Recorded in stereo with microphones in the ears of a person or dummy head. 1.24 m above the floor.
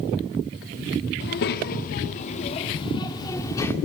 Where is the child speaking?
60° left (ahead or behind), 1.5 m; by 3.8 s 15° left (ahead or behind), 1.9 m.